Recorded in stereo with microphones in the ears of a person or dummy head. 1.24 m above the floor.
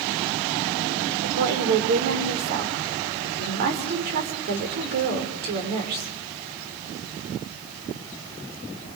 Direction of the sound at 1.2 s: 50° right (ahead or behind).